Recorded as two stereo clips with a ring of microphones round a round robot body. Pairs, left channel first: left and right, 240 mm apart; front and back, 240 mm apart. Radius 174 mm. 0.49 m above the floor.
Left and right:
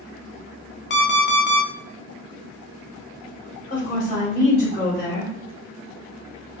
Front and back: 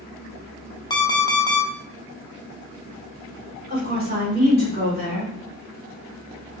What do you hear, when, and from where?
0.9 s an alarm clock: 70° left, 0.6 m
3.7 s a woman speaking: 145° left, 1.7 m